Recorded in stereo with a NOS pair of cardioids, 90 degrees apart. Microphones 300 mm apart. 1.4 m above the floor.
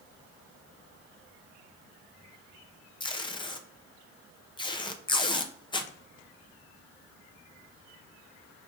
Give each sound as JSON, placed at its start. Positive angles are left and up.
{"t": 3.0, "sound": "tape being pulled", "azimuth_deg": 15, "distance_m": 0.6}